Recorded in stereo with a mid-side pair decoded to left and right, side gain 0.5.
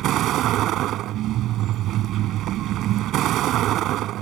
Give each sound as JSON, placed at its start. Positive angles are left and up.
{"t": 0.0, "sound": "a vehicle", "azimuth_deg": -70}